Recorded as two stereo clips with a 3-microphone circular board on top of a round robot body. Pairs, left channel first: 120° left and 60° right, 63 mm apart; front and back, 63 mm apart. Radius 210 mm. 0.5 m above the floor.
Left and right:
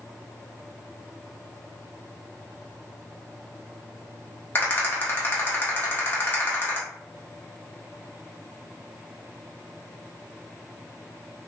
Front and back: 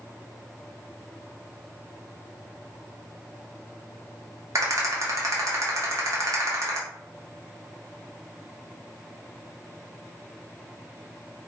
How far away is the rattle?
About 1.2 m.